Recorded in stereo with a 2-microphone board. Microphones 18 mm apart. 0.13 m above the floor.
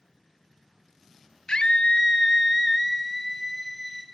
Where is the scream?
55° left (ahead or behind), 1.9 m; by 4.0 s 5° right (ahead or behind), 2.5 m.